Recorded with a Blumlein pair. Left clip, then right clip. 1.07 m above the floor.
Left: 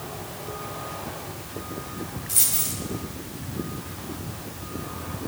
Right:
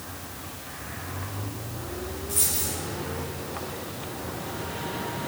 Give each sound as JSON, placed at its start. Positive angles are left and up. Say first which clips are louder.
{"t": 2.3, "sound": "a dropped coin", "louder": "left 2 dB", "azimuth_deg": 65, "distance_m": 2.0}